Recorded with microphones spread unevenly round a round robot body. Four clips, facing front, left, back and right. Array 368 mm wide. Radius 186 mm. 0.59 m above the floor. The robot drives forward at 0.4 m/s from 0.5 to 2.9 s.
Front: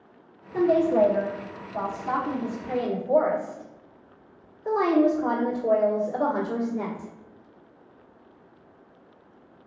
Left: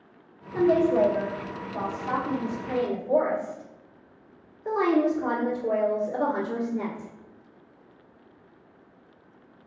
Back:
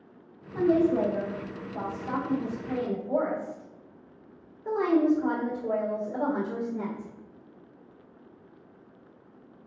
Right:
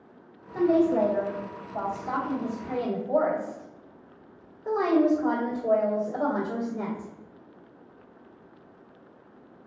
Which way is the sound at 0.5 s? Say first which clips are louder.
Left 1 dB, front 3 dB; 30° left.